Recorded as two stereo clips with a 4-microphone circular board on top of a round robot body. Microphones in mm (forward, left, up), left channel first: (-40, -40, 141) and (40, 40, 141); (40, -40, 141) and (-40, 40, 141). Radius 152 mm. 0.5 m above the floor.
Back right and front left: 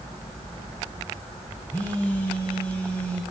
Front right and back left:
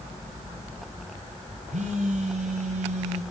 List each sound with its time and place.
1.7 s a phone buzzing: 150° left, 3 m